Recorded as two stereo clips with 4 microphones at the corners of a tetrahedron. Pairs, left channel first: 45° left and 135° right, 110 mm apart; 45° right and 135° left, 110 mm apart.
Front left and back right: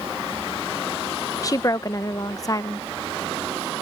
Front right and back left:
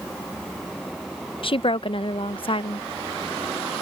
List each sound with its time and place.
1.4 s a woman speaking: 10° right